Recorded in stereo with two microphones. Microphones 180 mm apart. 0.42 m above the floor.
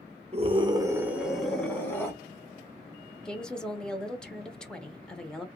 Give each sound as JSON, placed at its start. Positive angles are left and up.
{"t": 0.3, "sound": "a scream", "side_deg": -35, "distance_m": 1.0}
{"t": 3.2, "sound": "a woman speaking", "side_deg": 5, "distance_m": 1.0}